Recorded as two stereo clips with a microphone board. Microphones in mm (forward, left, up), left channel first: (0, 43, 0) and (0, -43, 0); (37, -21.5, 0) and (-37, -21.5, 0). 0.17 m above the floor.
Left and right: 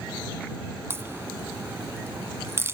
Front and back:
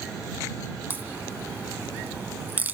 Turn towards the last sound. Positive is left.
turn(degrees=-130)